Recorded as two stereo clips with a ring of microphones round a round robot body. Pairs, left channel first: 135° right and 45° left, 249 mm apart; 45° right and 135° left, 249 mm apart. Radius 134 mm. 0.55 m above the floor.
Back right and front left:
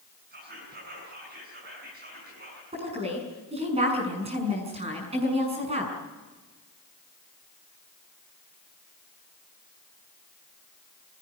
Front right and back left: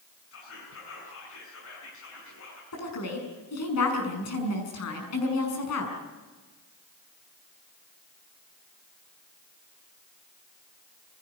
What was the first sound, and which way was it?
Whispering, 10° right.